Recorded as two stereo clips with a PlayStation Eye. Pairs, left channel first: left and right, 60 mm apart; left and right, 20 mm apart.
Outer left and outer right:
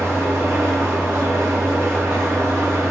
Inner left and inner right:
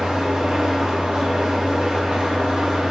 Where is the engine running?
50° right (ahead or behind), 5.5 m.